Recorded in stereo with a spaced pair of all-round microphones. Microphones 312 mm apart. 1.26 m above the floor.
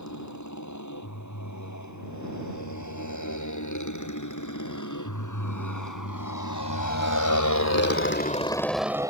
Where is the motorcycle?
65° left (ahead or behind); by 9.1 s 10° right (ahead or behind).